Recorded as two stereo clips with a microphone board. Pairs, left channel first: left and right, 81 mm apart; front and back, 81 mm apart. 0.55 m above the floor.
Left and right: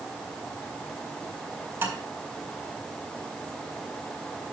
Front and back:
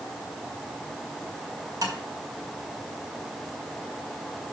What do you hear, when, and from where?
1.8 s tapping: 150° right, 2.5 m